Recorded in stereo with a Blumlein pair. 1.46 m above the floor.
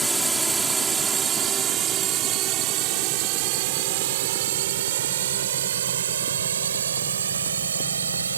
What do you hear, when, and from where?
0.0 s a drone: 5° right; by 8.4 s 70° right